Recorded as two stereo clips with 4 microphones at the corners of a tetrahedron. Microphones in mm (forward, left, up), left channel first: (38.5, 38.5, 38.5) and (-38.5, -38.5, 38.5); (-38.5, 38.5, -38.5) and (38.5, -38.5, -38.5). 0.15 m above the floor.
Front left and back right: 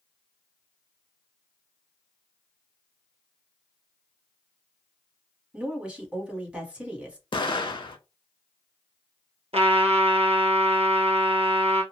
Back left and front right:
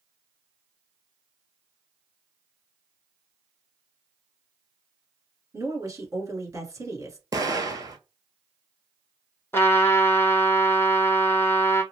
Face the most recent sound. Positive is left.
turn(degrees=-155)